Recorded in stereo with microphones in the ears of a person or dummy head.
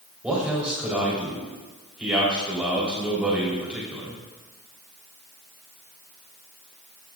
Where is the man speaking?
5° right (ahead or behind), 3 m.